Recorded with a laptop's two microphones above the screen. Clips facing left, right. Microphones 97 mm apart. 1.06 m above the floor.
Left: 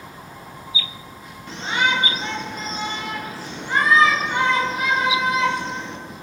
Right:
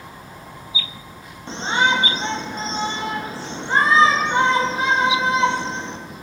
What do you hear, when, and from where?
1.5 s a shout: 30° right (ahead or behind), 0.8 m